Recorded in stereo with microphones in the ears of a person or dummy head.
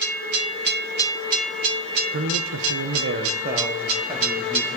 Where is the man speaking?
65° right (ahead or behind), 1.2 m; by 4.8 s 5° right (ahead or behind), 2.5 m.